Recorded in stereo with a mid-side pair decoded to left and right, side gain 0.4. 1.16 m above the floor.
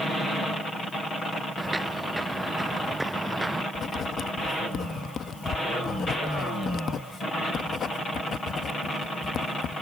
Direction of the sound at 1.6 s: 15° right.